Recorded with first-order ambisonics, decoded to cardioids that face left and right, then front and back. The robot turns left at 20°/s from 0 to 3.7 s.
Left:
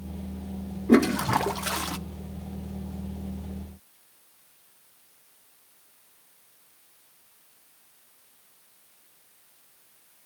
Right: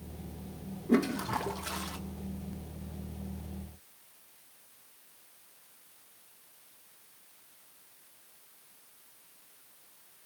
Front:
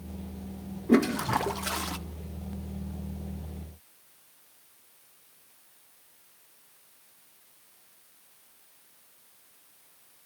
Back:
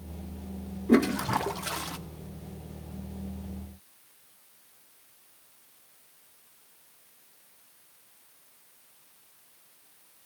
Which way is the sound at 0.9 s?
95° left.